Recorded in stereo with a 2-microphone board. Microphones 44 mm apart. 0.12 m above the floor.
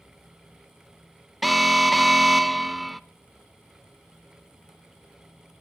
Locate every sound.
1.4 s an alarm: centre (ahead or behind), 0.7 m